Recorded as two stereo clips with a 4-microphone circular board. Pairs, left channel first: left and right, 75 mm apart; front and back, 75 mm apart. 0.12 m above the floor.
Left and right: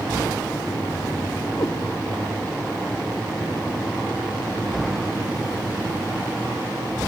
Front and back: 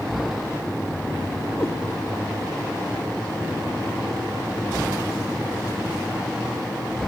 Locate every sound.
1.6 s a cat meowing: 55° left, 1.1 m